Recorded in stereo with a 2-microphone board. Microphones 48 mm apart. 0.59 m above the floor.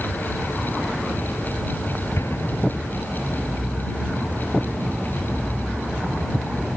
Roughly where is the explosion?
Left.